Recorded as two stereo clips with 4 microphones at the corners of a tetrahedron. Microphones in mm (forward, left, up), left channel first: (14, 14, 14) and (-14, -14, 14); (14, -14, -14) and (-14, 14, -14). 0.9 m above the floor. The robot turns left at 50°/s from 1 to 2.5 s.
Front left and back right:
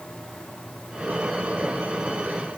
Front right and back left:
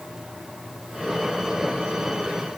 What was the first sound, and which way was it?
Only background noise.